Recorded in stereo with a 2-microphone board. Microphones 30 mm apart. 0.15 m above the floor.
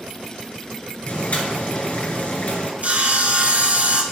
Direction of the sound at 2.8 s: 50° right (ahead or behind).